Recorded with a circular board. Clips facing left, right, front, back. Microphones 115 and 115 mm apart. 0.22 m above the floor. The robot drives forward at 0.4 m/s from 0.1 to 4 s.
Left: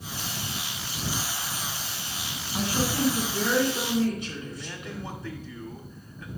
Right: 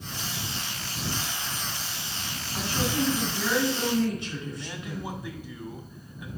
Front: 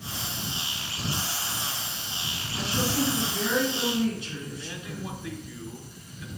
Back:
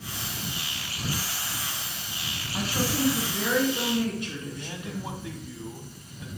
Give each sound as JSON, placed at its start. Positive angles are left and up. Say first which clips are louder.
{"t": 2.5, "sound": "a woman speaking", "louder": "left 1 dB, even", "azimuth_deg": 165, "distance_m": 2.5}
{"t": 4.5, "sound": "a man speaking", "louder": "right 1 dB, back 2 dB", "azimuth_deg": -155, "distance_m": 1.1}